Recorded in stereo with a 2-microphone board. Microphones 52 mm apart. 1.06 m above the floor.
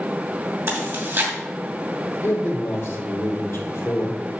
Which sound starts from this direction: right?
Chewing, at 0.7 s.